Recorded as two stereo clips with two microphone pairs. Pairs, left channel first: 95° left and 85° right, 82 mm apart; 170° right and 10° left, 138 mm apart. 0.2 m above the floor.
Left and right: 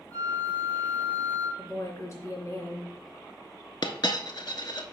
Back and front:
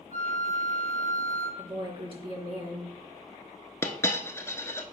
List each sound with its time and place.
0.1 s a flute: 35° left, 3.5 m
1.6 s a woman speaking: 50° left, 3 m
3.8 s a dropped coin: 115° left, 0.7 m